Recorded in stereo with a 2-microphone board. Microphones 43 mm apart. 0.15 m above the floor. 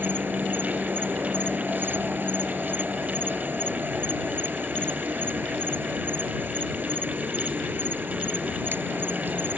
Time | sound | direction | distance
0.0 | an insect | 55° right (ahead or behind) | ?